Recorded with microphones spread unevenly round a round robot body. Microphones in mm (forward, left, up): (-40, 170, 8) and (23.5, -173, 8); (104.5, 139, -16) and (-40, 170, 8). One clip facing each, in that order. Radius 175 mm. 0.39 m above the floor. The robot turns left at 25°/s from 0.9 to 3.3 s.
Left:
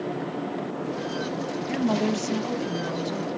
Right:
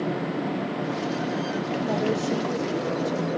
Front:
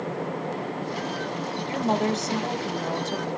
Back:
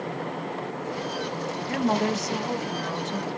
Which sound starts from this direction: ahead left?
A woman speaking, at 1.7 s.